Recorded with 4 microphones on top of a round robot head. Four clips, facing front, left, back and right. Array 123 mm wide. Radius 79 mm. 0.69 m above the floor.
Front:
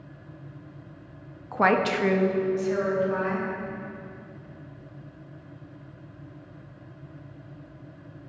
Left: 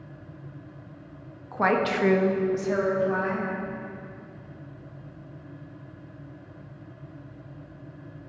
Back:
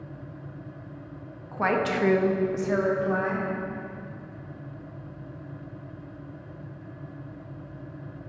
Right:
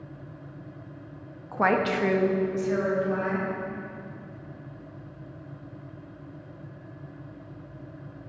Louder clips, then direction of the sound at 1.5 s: Even, front 3 dB; 20° right.